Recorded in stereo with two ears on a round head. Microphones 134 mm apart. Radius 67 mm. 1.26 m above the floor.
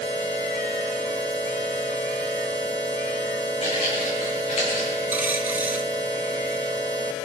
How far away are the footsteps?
About 4 m.